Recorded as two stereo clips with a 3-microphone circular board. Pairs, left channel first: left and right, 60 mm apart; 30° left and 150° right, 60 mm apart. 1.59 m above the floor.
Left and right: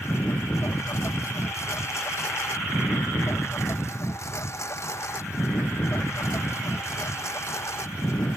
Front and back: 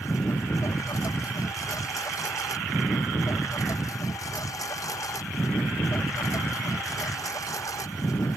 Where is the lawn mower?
50° left.